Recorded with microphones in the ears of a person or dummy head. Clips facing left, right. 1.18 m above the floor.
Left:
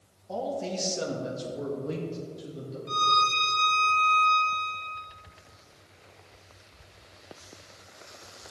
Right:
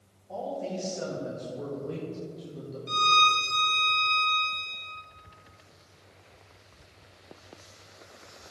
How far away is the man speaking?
About 2 m.